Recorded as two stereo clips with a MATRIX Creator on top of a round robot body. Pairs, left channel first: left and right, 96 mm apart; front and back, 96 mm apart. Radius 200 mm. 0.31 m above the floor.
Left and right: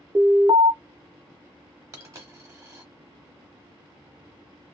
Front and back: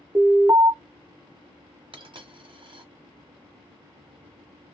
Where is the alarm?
125° right, 1.2 m.